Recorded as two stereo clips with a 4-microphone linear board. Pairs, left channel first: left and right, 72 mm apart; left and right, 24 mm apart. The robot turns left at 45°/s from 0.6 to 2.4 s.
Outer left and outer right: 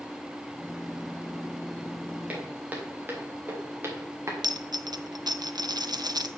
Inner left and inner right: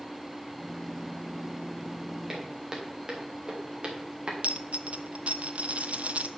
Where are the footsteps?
25° right (ahead or behind), 4 m; by 4.3 s 45° right (ahead or behind), 4 m.